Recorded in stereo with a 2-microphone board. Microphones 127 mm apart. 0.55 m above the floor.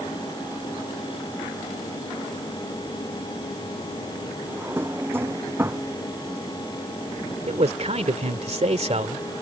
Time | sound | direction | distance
4.5 | a drawer | 15° right (ahead or behind) | ?
7.5 | a man speaking | 60° right (ahead or behind) | ?